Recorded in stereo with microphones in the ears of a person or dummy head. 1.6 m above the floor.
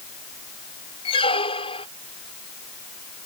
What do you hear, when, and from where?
1.1 s a squeak: 25° left (ahead or behind)